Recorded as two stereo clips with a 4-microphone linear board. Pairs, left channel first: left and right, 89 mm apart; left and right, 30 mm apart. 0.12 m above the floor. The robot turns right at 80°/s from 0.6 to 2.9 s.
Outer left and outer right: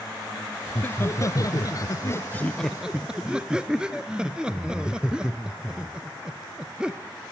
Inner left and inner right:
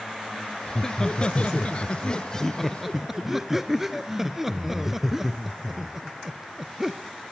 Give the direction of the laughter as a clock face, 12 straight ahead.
12 o'clock.